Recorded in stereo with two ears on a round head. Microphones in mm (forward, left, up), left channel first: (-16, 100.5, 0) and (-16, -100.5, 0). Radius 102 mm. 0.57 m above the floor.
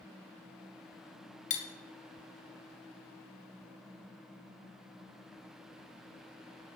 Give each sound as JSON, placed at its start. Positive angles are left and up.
{"t": 1.5, "sound": "cutlery clinking", "side_deg": 35, "distance_m": 0.8}